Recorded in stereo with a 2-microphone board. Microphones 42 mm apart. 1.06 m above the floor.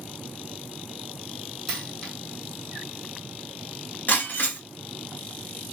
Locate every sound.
1.7 s a dropped coin: 10° left (ahead or behind), 1.6 m
4.1 s breaking glass: 45° left (ahead or behind), 1.2 m